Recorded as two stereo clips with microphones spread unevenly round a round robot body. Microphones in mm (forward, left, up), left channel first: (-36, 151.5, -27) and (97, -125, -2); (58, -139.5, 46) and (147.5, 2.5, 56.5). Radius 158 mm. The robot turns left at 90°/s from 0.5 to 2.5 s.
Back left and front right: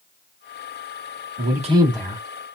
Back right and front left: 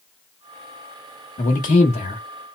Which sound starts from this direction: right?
A man speaking, at 1.4 s.